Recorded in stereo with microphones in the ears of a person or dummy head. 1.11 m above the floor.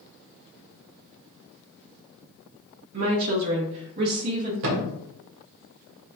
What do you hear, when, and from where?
2.9 s a woman speaking: 80° right, 1.4 m; by 4.5 s 45° right (ahead or behind), 1.3 m
4.6 s a thud: 65° right (ahead or behind), 1.2 m